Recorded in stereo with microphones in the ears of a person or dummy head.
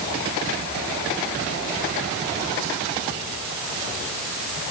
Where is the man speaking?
No man speaking in this recording.